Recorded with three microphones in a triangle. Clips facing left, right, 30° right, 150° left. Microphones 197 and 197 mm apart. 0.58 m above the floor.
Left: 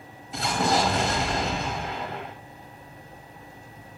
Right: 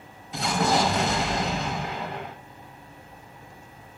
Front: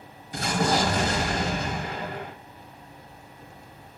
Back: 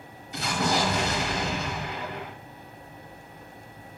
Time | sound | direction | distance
0.3 | an explosion | straight ahead | 0.7 m